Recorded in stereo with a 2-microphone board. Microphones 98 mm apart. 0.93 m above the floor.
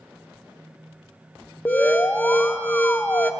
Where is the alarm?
20° left (ahead or behind), 0.5 m.